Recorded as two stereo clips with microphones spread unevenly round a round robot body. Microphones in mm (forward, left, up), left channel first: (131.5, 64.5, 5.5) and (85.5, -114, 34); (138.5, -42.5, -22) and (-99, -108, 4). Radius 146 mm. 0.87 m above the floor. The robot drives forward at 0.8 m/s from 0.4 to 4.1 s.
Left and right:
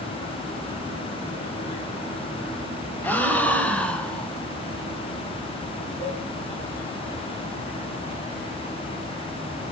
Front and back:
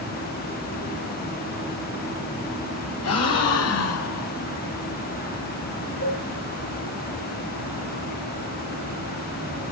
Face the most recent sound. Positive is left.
turn(degrees=20)